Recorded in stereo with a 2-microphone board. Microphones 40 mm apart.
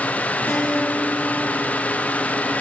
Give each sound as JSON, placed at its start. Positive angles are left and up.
{"t": 0.5, "sound": "a guitar", "side_deg": 55, "distance_m": 6.0}